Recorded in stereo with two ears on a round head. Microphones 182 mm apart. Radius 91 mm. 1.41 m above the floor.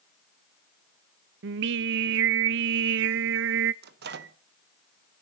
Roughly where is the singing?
Right.